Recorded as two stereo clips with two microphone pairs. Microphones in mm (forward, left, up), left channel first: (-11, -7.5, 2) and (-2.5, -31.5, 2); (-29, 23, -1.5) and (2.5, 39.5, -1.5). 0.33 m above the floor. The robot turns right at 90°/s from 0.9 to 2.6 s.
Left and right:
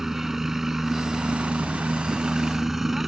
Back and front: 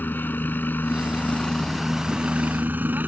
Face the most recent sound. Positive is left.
turn(degrees=5)